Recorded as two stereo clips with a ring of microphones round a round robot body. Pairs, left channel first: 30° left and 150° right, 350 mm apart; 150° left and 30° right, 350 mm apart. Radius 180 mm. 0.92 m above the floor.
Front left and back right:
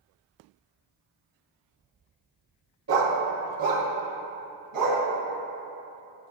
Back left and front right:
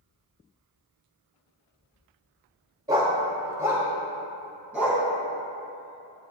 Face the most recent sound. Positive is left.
turn(degrees=-115)